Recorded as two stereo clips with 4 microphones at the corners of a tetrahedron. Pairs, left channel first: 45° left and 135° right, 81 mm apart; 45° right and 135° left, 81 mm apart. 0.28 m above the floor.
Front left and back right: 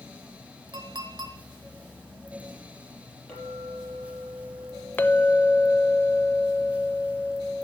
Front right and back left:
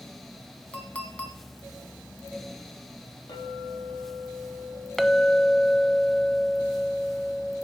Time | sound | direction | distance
0.7 | a clink | 115° right | 1.8 m
3.3 | a clink | 35° right | 6.5 m
5.0 | a clink | 40° left | 0.6 m